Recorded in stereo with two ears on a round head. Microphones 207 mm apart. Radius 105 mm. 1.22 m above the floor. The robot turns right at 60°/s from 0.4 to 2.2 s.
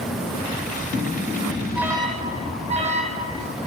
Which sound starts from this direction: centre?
An alarm, at 1.8 s.